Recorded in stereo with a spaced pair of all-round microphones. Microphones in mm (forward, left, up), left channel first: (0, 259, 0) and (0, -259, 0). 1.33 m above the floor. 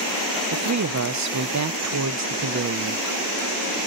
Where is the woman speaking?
35° right (ahead or behind), 0.5 m.